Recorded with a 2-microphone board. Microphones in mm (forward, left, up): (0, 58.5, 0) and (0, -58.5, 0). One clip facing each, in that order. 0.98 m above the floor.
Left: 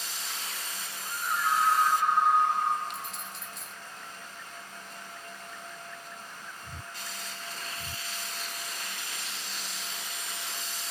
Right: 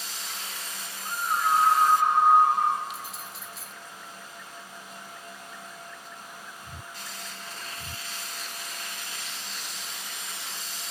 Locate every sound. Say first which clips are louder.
1.1 s a scream: right 4 dB; 50° right (ahead or behind), 1.7 m
2.9 s keys jangling: right 1 dB; 5° right (ahead or behind), 0.8 m